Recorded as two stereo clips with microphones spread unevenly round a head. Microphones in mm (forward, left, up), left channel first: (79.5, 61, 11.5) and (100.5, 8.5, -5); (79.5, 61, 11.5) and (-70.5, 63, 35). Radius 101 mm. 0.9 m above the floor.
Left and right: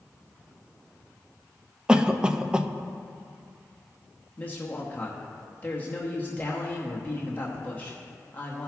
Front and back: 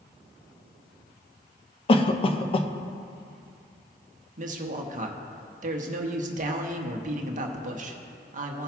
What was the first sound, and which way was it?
A cough, 15° right.